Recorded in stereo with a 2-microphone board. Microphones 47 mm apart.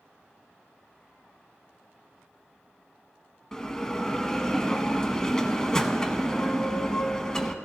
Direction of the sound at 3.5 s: 15° left (ahead or behind).